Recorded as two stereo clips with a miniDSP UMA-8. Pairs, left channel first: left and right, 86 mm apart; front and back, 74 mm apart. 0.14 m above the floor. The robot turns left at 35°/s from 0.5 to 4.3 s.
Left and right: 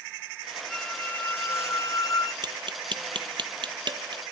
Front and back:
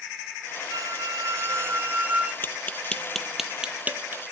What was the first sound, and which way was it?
A squeak, 170° left.